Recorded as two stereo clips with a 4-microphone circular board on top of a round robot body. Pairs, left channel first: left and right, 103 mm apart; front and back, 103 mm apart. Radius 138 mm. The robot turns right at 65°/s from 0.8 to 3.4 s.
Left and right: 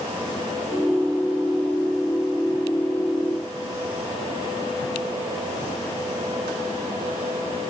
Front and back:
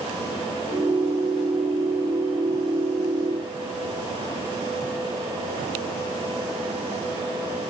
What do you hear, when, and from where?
Only background noise.